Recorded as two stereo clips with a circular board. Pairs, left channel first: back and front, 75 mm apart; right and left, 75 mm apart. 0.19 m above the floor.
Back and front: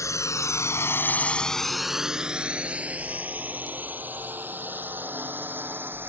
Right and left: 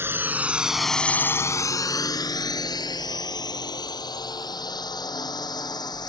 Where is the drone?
145° left; by 6.1 s 60° right.